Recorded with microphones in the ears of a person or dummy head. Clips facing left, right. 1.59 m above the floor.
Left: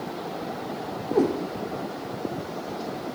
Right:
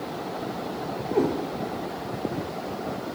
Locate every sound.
1.1 s a cat meowing: 5° left (ahead or behind), 0.9 m